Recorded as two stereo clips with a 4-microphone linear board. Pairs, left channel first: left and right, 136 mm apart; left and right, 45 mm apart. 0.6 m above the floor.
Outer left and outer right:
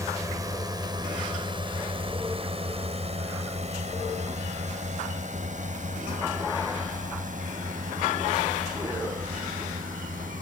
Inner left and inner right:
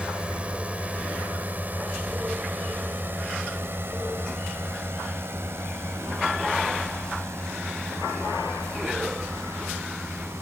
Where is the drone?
25° right (ahead or behind); by 10.4 s 75° right (ahead or behind).